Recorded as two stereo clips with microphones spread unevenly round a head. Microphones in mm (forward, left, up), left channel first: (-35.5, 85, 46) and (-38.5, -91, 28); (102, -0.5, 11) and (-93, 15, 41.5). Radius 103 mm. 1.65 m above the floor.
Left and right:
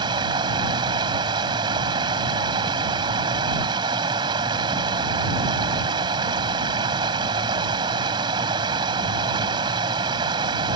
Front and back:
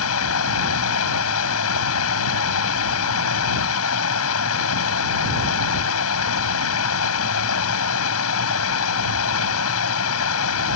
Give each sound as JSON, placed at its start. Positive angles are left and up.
{"t": 0.0, "sound": "running water", "azimuth_deg": -20}